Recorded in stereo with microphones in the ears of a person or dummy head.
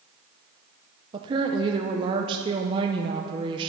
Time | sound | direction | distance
1.1 | a woman speaking | 25° right (ahead or behind) | 0.6 m